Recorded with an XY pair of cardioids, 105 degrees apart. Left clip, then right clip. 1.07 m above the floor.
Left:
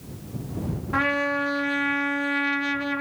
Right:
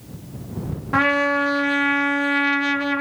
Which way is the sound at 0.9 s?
35° right.